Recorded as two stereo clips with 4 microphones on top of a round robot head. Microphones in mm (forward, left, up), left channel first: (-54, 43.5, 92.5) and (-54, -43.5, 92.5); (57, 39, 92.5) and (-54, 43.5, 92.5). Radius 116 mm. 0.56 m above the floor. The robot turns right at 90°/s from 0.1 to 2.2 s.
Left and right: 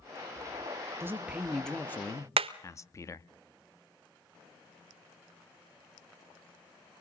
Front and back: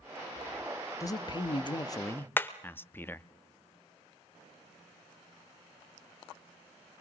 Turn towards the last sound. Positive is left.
turn(degrees=-75)